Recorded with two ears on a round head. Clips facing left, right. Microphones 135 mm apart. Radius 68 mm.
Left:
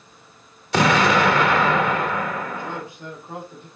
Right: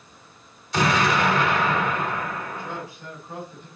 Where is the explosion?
55° left (ahead or behind), 1.4 m.